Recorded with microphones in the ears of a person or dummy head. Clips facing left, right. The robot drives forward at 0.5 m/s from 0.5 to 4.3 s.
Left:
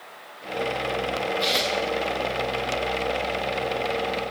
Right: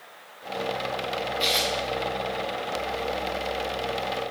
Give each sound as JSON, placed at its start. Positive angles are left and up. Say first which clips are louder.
{"t": 1.4, "sound": "tearing paper", "louder": "left 2 dB", "side_deg": 0, "distance_m": 1.4}